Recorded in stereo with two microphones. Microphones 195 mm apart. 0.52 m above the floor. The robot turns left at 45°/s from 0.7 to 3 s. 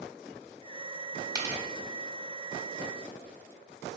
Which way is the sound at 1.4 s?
15° right (ahead or behind).